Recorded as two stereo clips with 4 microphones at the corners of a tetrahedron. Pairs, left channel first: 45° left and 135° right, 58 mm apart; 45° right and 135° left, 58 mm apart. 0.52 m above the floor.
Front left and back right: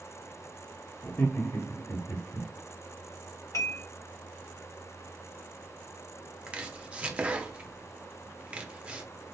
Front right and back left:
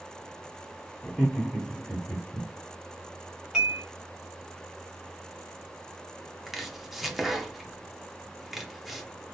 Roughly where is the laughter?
Ahead left.